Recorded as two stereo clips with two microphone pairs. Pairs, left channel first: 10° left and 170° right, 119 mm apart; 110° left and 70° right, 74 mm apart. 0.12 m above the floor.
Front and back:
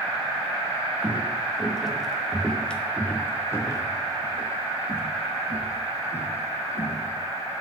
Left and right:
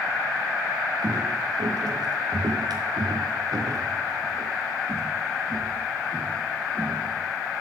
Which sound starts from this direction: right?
Footsteps, at 1.0 s.